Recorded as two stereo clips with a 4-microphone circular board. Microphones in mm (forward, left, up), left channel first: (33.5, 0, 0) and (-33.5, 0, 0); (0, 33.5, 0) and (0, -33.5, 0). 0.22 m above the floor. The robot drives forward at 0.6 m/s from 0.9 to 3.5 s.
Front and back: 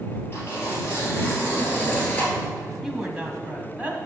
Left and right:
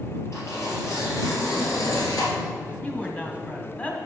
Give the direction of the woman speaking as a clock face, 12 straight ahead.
9 o'clock.